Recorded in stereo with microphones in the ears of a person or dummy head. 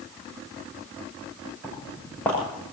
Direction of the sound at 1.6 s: 5° left (ahead or behind).